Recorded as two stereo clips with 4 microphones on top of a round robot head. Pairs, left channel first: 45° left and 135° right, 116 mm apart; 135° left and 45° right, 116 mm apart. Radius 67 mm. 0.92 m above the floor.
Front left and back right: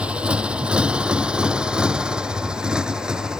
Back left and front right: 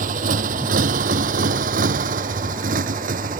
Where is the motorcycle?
55° right.